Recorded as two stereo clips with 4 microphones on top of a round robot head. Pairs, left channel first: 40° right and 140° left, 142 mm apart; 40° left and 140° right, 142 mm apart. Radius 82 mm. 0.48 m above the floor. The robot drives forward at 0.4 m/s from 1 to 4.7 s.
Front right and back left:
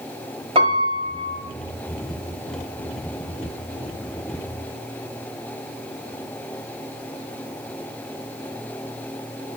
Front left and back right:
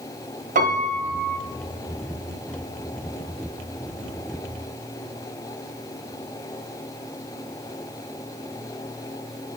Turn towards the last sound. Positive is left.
turn(degrees=-175)